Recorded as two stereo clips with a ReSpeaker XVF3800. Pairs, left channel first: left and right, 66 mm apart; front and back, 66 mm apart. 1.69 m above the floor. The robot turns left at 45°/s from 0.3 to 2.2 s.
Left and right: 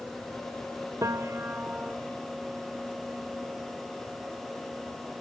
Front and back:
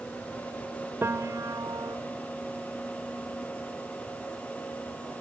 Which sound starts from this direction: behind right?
A piano, at 1.0 s.